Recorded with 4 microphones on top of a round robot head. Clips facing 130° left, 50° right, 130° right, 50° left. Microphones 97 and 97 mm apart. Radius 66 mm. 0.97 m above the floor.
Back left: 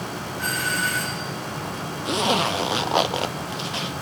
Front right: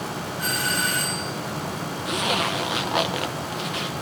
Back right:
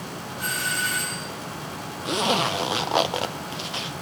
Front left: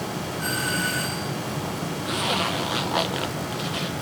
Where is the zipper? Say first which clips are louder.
Back left 4 dB, back right 4 dB; straight behind, 0.9 m.